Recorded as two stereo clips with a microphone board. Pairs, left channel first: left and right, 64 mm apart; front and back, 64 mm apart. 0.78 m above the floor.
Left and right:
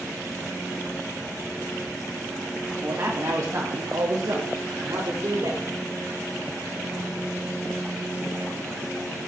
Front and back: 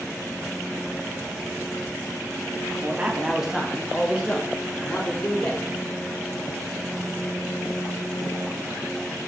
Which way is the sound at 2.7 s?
140° right.